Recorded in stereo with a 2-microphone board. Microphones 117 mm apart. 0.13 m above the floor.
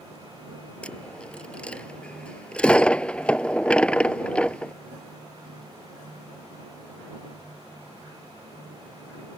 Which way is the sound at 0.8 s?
10° left (ahead or behind).